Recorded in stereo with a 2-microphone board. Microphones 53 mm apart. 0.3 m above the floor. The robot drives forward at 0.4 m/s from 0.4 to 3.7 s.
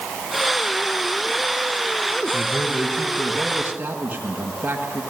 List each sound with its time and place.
2.3 s a man speaking: 35° right (ahead or behind), 4 m; by 5.0 s 30° right (ahead or behind), 4 m